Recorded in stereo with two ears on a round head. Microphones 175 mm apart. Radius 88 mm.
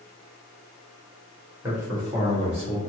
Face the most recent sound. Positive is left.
turn(degrees=-35)  # may be behind; listen again after turning